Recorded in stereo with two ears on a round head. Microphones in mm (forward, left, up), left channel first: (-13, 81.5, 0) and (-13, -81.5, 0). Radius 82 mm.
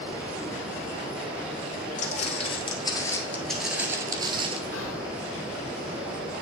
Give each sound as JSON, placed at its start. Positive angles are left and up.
{"t": 2.0, "sound": "footsteps", "side_deg": 45, "distance_m": 1.7}
{"t": 4.7, "sound": "whispering", "side_deg": 85, "distance_m": 2.5}